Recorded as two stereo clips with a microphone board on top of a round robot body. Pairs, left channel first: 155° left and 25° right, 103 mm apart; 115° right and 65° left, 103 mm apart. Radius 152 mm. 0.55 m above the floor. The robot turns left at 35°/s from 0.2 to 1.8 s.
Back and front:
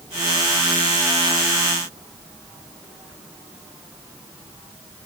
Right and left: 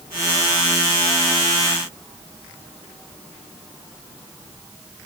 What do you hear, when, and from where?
Only background noise.